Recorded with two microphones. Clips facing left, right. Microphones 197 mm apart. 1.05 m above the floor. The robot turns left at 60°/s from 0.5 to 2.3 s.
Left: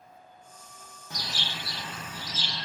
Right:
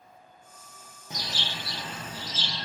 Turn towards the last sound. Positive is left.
turn(degrees=-110)